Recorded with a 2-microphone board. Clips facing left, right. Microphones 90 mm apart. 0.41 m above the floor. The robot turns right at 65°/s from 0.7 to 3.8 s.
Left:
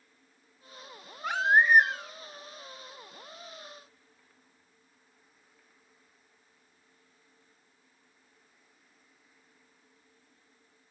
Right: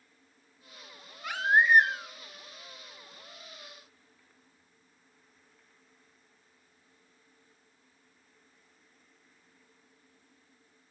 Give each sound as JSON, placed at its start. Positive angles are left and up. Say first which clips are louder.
{"t": 1.2, "sound": "a baby crying", "louder": "left 1 dB", "azimuth_deg": 140, "distance_m": 0.7}